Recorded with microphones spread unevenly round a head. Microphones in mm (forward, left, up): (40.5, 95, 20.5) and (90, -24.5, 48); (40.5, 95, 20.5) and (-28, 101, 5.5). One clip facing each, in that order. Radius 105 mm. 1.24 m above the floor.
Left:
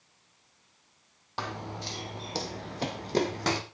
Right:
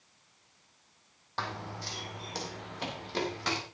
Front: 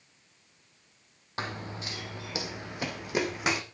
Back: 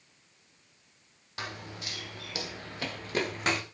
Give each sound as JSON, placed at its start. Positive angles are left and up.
{"t": 1.4, "sound": "running footsteps", "azimuth_deg": 35, "distance_m": 2.5}